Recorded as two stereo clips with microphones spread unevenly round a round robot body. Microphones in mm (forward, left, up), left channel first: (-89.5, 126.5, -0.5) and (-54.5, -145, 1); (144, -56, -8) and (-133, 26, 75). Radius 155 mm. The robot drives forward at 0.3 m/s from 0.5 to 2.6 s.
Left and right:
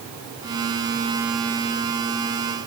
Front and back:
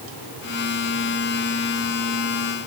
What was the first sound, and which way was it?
Only background noise.